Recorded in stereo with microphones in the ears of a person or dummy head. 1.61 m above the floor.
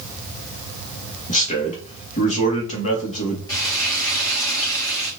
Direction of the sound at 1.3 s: 35° left (ahead or behind).